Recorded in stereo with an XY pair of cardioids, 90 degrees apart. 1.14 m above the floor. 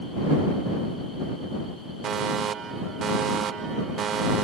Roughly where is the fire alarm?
Ahead right.